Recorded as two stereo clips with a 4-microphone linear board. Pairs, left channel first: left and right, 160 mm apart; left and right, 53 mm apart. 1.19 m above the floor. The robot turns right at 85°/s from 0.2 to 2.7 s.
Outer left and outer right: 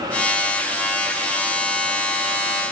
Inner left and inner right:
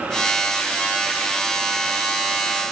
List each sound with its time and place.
Only background noise.